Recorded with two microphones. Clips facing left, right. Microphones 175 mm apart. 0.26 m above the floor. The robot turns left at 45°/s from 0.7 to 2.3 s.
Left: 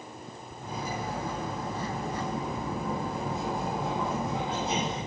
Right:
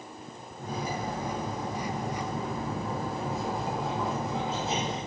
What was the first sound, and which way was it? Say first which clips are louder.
Cutlery clinking: right 2 dB; 105° right.